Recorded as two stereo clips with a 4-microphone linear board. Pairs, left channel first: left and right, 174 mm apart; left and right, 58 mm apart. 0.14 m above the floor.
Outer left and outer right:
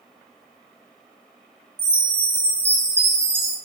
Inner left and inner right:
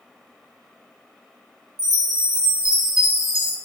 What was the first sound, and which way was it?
A chime, 15° right (ahead or behind).